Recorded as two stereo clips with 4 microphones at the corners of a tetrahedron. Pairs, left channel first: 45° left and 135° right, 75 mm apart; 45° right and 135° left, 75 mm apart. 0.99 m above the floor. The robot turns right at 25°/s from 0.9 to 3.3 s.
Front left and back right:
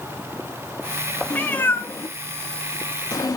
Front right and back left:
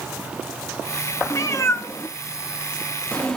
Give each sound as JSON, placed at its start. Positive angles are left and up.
{"t": 1.3, "sound": "a cat meowing", "azimuth_deg": -15, "distance_m": 0.6}